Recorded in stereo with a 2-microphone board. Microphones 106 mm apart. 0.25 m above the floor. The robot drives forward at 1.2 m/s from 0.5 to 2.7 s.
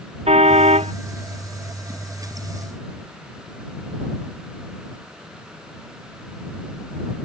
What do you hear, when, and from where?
0.3 s a car horn: 80° right